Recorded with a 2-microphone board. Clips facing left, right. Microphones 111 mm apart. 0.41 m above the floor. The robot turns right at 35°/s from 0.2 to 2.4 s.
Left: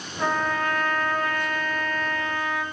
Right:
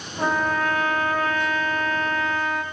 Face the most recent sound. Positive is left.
turn(degrees=-65)